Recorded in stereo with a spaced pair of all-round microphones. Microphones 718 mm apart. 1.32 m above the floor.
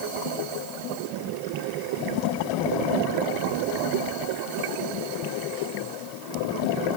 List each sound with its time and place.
Only background noise.